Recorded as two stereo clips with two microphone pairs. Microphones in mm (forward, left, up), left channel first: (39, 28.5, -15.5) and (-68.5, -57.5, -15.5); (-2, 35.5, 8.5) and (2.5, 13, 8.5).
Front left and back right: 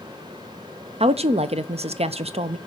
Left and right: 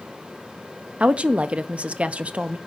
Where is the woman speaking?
100° right, 0.6 m.